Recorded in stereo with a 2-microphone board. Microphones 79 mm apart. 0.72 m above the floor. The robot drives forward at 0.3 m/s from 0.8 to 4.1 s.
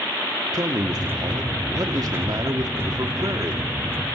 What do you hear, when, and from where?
0.5 s a man speaking: 55° right (ahead or behind), 1.7 m; by 3.7 s 50° right (ahead or behind), 1.9 m